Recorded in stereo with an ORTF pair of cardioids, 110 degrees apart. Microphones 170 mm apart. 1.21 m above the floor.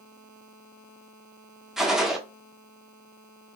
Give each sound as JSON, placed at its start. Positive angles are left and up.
{"t": 1.8, "sound": "a gunshot", "azimuth_deg": 0, "distance_m": 0.8}